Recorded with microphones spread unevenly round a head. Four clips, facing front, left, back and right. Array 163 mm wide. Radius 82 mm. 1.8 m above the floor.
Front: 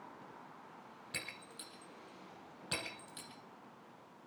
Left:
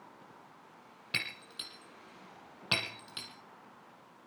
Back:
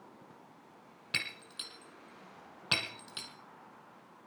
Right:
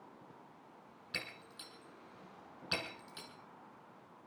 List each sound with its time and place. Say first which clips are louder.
1.1 s breaking glass: left 5 dB, back 7 dB; 125° left, 4.5 m